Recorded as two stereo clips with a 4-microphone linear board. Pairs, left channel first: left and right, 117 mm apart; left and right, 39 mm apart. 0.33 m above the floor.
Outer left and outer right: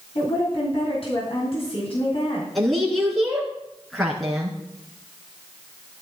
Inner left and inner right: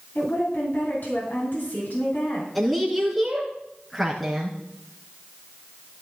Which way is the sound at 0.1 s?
55° left (ahead or behind).